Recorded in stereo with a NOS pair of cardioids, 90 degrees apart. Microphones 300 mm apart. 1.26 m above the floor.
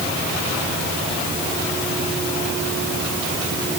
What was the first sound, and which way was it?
Only background noise.